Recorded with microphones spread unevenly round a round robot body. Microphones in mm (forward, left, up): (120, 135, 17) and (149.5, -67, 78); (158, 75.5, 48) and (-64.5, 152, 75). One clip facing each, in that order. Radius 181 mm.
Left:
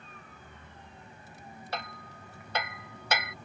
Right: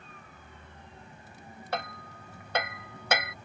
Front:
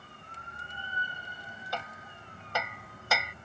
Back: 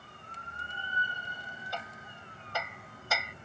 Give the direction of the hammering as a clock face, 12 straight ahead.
1 o'clock.